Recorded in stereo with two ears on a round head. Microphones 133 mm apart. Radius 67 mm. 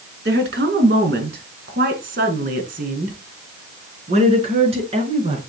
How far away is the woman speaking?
About 4 m.